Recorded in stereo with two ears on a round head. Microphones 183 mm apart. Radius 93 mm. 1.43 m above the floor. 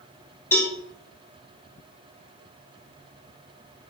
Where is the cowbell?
10° left (ahead or behind), 2.5 m.